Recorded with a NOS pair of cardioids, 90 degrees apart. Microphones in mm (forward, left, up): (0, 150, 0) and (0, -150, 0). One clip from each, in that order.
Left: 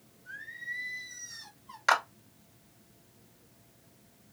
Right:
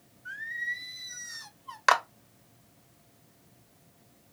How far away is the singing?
About 0.9 m.